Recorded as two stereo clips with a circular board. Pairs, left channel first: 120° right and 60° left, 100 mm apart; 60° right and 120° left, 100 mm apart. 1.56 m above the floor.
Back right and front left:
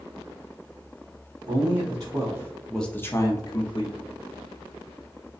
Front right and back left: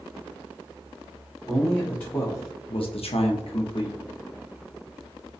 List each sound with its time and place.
1.5 s a man speaking: 25° left, 0.9 m; by 4.0 s 90° right, 0.8 m